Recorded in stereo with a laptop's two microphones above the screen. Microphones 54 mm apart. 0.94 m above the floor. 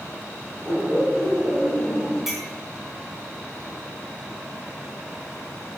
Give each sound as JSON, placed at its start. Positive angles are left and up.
{"t": 0.7, "sound": "laughter", "side_deg": -35, "distance_m": 4.5}
{"t": 2.3, "sound": "a clink", "side_deg": 0, "distance_m": 4.5}